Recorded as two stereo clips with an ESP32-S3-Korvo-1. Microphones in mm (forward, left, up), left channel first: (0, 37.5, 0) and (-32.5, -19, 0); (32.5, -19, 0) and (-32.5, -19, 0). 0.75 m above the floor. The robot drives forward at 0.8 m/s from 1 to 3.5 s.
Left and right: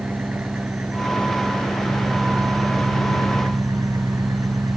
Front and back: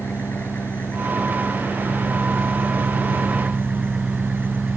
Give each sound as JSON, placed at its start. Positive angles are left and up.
{"t": 0.0, "sound": "an engine running", "azimuth_deg": -55}